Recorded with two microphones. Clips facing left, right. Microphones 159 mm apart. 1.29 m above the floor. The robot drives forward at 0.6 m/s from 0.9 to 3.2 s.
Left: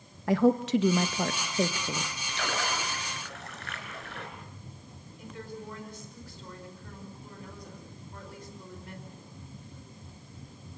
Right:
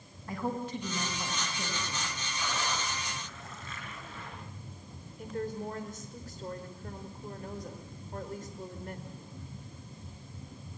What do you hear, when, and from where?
0.3 s a woman speaking: 85° left, 1.2 m; by 2.1 s 60° left (ahead or behind), 1.4 m
2.3 s a splash: 70° left (ahead or behind), 4 m; by 4.3 s 75° left (ahead or behind), 4 m
5.2 s a woman speaking: 45° right (ahead or behind), 5 m